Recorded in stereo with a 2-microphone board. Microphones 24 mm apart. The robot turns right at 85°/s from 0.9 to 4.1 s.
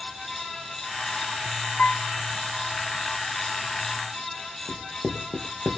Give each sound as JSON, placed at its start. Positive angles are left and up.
{"t": 1.8, "sound": "a piano", "side_deg": 65, "distance_m": 0.5}
{"t": 4.7, "sound": "writing", "side_deg": -85, "distance_m": 2.5}